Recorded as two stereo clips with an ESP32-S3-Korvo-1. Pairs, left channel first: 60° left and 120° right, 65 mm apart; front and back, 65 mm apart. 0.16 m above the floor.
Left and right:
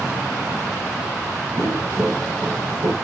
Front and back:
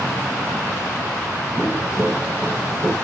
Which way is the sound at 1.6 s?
120° right.